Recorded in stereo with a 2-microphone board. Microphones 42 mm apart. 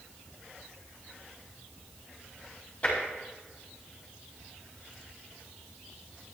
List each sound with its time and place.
2.8 s tapping: 35° left (ahead or behind), 4.5 m